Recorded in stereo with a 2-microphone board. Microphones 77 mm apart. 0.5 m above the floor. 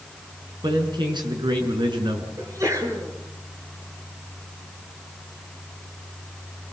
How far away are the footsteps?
No footsteps in this recording.